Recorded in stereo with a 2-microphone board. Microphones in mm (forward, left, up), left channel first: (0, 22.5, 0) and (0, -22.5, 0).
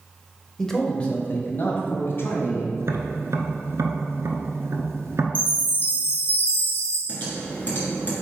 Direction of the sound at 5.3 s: 45° left (ahead or behind).